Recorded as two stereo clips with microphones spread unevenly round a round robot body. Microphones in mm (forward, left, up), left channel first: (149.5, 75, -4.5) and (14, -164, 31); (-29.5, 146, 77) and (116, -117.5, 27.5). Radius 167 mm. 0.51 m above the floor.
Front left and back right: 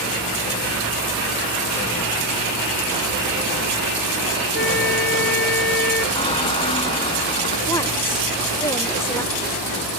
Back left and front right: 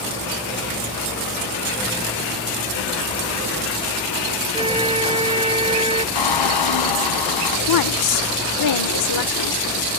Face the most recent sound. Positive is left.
turn(degrees=140)